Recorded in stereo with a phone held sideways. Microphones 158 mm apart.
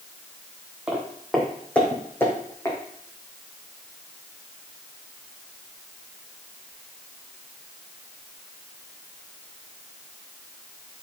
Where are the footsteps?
10° right (ahead or behind), 2.5 m; by 2.8 s 20° left (ahead or behind), 3.5 m.